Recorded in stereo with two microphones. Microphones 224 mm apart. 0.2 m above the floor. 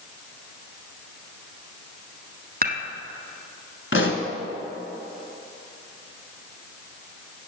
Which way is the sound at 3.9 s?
65° left (ahead or behind).